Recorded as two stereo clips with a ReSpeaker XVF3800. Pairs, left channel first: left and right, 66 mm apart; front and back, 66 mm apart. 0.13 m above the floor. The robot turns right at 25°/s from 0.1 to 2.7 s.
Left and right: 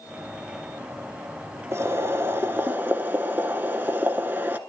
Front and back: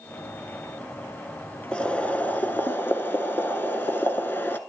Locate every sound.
1.7 s boiling: 70° right, 0.6 m; by 4.6 s 45° right, 0.6 m